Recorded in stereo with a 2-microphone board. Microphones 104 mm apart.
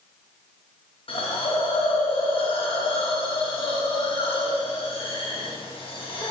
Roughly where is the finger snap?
No finger snap in this recording.